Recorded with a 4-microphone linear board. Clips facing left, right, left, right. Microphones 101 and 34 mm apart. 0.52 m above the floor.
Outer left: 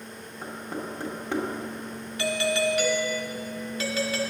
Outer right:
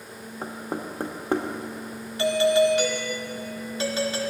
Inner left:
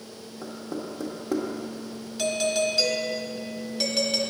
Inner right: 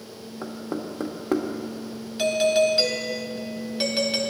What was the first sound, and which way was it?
Knocking, 40° right (ahead or behind).